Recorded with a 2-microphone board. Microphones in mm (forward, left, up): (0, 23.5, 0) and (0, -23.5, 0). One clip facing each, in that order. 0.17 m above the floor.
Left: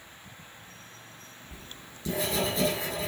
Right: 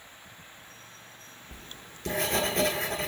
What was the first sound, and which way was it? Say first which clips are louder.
Writing: right 1 dB; 55° right (ahead or behind).